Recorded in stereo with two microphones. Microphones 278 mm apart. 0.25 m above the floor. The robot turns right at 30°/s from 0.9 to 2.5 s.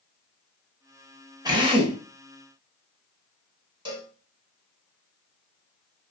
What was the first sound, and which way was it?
A drill, 15° right (ahead or behind).